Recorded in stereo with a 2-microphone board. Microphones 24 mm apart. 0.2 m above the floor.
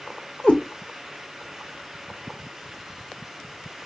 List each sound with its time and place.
0.4 s a cat meowing: 85° left, 0.9 m